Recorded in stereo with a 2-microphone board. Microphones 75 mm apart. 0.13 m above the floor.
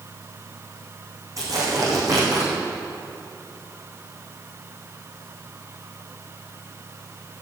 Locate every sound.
1.4 s tearing paper: 50° right (ahead or behind), 4.5 m